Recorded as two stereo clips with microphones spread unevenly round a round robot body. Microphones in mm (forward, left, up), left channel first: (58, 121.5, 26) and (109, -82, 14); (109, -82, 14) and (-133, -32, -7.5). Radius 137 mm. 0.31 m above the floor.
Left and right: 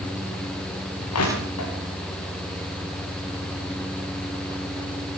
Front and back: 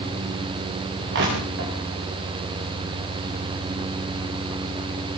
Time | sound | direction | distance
1.1 | crushing | 115° left | 8.5 m